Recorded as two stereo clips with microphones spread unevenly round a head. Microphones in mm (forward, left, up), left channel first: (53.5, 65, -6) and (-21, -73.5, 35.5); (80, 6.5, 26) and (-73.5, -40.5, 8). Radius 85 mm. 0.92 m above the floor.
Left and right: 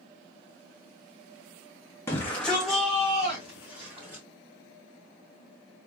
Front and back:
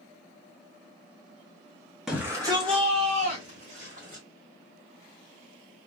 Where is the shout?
115° left, 1.0 m; by 4.2 s 155° left, 3 m.